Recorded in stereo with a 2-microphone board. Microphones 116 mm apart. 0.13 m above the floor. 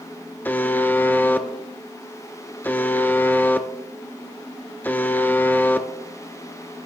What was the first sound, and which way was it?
A buzzer, 15° left (ahead or behind).